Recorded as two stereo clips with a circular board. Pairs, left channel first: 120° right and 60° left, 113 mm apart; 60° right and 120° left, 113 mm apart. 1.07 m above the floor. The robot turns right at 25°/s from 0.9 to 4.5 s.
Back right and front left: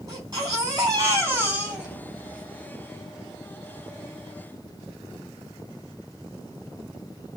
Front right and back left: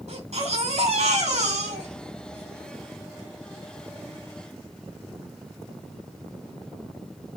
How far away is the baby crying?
About 6 m.